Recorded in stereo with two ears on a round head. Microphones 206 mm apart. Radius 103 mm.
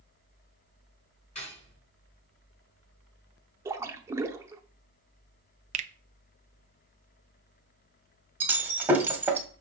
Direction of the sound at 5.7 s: 30° right (ahead or behind).